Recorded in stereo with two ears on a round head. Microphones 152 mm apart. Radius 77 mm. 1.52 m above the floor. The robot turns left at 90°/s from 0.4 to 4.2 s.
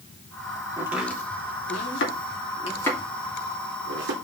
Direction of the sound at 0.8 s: 25° right (ahead or behind).